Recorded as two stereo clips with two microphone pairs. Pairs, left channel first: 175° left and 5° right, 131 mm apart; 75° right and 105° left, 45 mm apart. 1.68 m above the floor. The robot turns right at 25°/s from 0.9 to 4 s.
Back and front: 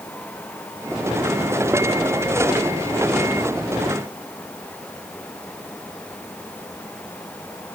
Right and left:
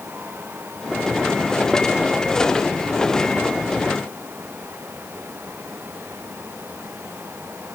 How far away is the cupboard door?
I don't hear a cupboard door.